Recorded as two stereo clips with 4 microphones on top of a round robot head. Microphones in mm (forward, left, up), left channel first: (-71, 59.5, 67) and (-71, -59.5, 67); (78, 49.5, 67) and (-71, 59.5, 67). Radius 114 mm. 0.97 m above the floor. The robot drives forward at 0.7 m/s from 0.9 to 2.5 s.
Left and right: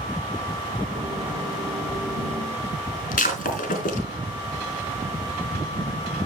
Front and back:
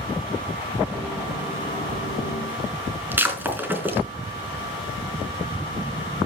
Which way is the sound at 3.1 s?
100° left.